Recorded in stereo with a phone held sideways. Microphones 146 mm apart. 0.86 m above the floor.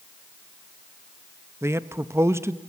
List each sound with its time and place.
1.6 s a man speaking: 20° right (ahead or behind), 0.5 m